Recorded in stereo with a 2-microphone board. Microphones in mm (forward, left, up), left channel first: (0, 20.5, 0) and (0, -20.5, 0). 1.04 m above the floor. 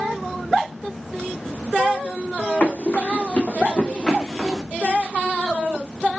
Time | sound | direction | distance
2.6 | running footsteps | 40° left (ahead or behind) | 2.5 m